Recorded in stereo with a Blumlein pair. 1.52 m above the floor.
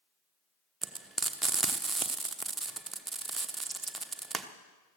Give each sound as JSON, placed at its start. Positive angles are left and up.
{"t": 0.8, "sound": "frying", "azimuth_deg": -10, "distance_m": 1.1}